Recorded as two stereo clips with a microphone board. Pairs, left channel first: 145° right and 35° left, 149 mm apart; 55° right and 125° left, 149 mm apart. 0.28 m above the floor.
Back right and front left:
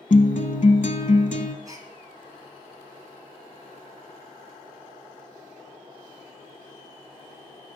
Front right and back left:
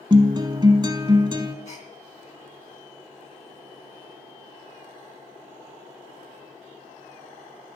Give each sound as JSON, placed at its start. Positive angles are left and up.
{"t": 0.1, "sound": "a guitar", "azimuth_deg": -175, "distance_m": 0.8}
{"t": 1.6, "sound": "a gasp", "azimuth_deg": -30, "distance_m": 1.9}